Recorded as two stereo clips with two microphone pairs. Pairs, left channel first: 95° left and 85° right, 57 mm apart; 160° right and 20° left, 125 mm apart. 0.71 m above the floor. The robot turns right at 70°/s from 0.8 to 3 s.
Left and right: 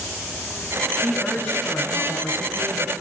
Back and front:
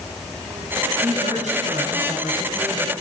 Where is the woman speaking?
5° left, 5.5 m; by 2.9 s 140° left, 5.5 m.